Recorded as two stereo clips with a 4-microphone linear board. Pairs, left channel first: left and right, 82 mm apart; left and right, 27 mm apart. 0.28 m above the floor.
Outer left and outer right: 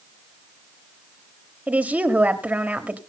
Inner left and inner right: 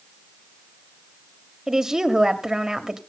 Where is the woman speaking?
20° right (ahead or behind), 1.3 m.